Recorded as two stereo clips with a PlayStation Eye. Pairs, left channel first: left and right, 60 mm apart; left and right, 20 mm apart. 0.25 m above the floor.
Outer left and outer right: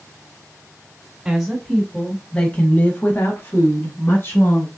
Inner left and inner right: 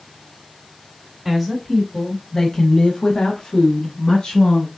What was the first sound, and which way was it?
A woman speaking, 10° right (ahead or behind).